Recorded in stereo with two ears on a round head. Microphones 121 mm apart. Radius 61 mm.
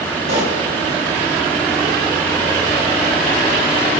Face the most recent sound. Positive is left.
turn(degrees=-50)  # may be behind; listen again after turning